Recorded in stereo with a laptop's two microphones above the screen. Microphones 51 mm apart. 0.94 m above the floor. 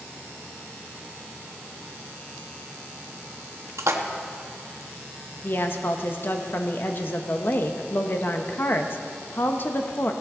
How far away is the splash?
About 1.1 m.